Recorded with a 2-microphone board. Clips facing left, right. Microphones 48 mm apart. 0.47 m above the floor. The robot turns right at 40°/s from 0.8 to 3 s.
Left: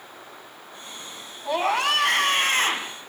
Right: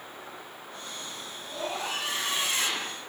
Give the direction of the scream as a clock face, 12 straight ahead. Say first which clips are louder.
Left 11 dB; 9 o'clock.